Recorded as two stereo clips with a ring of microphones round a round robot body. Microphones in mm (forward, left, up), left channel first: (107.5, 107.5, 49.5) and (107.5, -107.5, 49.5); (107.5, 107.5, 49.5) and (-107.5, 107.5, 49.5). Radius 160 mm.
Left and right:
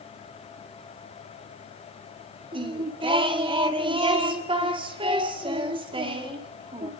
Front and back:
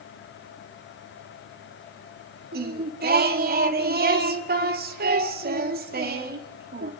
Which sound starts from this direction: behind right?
Singing, at 2.5 s.